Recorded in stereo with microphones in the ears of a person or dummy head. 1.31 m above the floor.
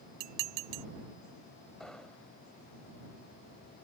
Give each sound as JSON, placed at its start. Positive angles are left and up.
{"t": 0.2, "sound": "dishes clattering", "side_deg": -55}
{"t": 1.8, "sound": "an explosion", "side_deg": 5}